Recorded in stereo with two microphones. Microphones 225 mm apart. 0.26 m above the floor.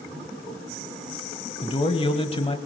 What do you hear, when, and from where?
1.6 s a man speaking: 25° left (ahead or behind), 1.1 m